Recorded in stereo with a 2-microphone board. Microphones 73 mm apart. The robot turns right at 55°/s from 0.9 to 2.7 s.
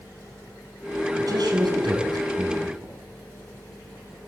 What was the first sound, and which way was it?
A man speaking, 125° right.